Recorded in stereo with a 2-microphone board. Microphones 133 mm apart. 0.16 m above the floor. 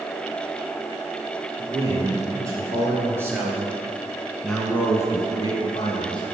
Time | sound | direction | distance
1.6 | a man speaking | 25° right (ahead or behind) | 4.5 m